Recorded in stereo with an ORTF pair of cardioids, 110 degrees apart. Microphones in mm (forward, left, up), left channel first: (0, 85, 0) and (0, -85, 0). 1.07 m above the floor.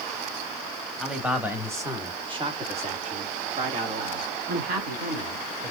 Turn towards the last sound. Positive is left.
turn(degrees=-65)